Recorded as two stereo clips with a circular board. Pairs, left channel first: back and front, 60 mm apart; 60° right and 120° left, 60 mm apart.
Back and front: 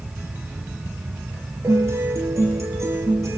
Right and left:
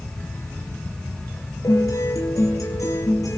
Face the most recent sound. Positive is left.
turn(degrees=-35)